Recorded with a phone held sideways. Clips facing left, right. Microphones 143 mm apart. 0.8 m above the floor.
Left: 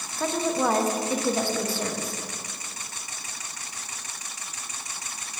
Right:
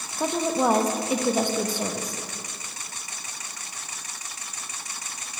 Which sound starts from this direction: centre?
A woman speaking, at 0.2 s.